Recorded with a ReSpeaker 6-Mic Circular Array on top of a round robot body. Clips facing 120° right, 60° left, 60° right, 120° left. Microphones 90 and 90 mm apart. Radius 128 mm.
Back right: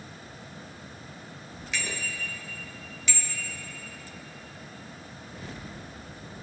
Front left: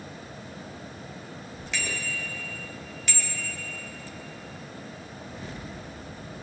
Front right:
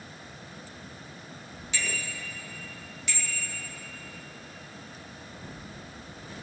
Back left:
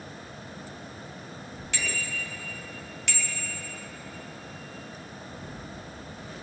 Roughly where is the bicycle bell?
Behind left.